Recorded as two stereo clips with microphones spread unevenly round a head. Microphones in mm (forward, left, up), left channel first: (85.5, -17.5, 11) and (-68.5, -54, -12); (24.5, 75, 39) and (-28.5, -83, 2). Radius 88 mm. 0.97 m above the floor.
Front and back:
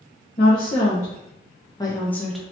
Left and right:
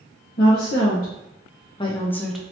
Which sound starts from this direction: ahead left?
A woman speaking, at 0.4 s.